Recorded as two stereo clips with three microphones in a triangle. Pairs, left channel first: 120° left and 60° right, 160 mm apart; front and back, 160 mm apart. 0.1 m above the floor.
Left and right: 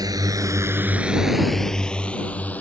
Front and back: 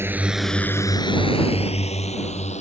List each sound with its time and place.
0.0 s a drone: 115° right; by 2.6 s 40° left